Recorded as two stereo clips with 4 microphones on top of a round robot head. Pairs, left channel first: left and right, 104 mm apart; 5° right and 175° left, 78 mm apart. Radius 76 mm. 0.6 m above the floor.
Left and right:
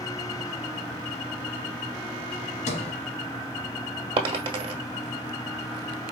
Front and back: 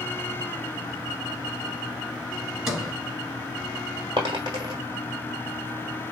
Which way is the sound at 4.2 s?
125° right.